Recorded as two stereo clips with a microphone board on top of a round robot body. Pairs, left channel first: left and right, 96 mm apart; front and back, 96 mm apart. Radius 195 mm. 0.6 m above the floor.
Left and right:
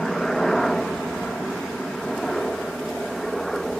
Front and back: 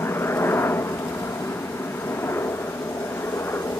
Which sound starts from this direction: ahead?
A helicopter, at 0.0 s.